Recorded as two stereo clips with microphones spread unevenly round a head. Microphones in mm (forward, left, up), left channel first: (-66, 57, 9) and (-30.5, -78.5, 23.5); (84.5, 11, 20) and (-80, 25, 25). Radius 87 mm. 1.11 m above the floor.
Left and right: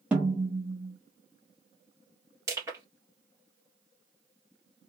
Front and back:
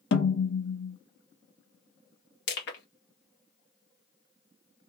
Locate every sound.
0.1 s a snare drum: 10° left, 0.9 m
2.5 s crushing: straight ahead, 1.6 m